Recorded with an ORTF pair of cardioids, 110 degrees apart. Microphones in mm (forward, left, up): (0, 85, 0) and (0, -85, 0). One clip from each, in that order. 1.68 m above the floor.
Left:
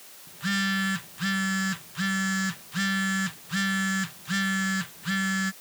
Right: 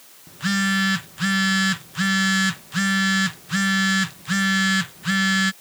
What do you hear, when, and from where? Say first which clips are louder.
0.3 s a phone buzzing: right 5 dB; 35° right